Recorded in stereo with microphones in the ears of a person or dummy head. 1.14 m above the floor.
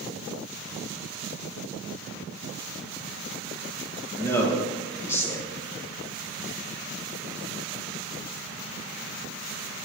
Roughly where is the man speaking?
Centre.